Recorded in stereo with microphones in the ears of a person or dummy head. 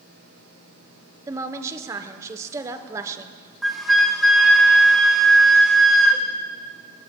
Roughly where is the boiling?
No boiling in this recording.